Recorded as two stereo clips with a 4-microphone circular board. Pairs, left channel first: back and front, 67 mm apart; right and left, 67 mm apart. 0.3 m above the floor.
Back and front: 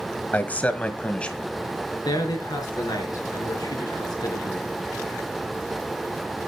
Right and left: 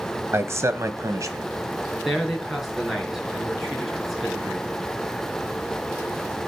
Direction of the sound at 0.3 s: 125° left.